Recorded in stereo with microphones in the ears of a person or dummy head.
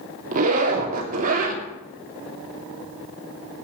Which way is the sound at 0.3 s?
45° right (ahead or behind).